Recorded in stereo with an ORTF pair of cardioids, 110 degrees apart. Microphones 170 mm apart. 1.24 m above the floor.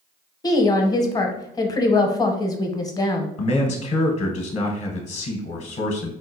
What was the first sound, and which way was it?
A woman speaking, 25° left.